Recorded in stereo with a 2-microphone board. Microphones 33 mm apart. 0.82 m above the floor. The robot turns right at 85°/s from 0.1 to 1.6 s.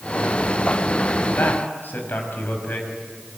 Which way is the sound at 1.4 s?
85° left.